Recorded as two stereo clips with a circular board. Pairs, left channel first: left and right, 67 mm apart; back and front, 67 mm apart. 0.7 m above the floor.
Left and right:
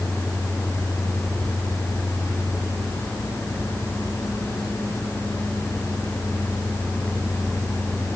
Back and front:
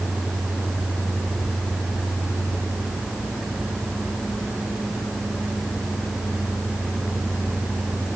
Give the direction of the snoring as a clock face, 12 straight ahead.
I don't hear snoring.